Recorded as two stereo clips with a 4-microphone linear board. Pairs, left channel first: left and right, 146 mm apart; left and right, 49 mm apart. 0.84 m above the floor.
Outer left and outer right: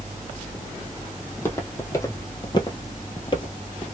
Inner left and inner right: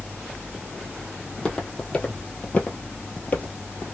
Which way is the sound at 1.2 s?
15° left (ahead or behind).